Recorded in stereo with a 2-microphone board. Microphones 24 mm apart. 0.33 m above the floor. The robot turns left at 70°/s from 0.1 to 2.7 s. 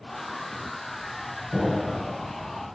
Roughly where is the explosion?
Ahead.